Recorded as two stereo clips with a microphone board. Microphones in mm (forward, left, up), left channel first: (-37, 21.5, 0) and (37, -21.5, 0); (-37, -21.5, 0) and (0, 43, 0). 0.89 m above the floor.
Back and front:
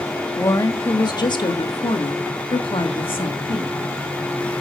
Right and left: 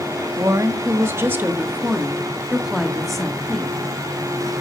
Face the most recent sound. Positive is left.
turn(degrees=160)